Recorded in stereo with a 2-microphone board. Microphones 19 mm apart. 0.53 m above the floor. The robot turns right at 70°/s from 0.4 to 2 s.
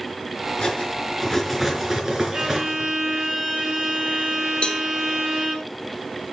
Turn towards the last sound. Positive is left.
turn(degrees=60)  # may be behind; listen again after turning